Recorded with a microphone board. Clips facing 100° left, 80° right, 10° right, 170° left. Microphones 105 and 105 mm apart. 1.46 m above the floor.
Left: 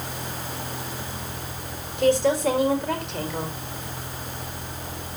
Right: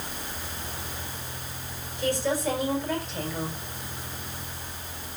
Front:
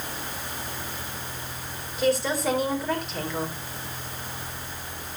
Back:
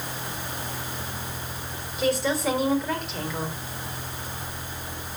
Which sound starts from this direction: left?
A woman speaking, at 2.0 s.